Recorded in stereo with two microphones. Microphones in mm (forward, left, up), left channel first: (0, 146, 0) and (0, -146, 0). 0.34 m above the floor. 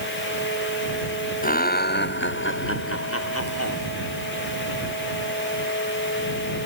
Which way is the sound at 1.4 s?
30° left (ahead or behind).